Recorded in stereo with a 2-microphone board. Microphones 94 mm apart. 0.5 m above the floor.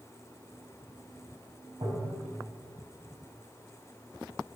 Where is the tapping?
65° right (ahead or behind), 4 m.